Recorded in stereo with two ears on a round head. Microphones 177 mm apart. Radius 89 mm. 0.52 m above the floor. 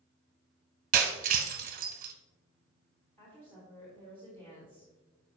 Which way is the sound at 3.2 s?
15° left (ahead or behind).